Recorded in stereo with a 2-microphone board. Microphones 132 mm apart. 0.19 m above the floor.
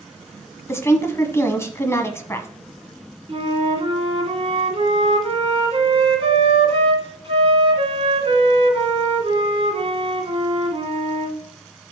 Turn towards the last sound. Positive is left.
turn(degrees=-45)  # may be behind; listen again after turning